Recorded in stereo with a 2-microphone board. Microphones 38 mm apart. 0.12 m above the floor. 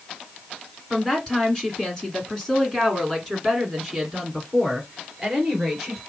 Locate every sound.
0.9 s a woman speaking: 15° left (ahead or behind), 1.9 m; by 6.0 s centre (ahead or behind), 2.5 m